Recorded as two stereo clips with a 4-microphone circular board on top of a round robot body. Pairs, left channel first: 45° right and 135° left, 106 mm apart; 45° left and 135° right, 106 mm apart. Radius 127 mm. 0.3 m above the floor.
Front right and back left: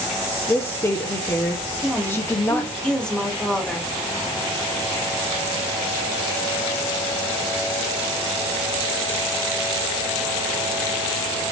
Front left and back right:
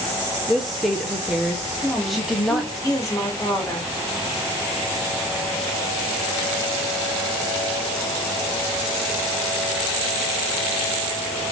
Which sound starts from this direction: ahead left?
A woman speaking, at 1.8 s.